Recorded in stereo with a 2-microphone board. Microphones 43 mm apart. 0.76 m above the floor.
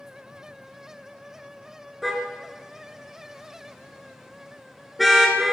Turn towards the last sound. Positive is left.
turn(degrees=0)  # may be behind; listen again after turning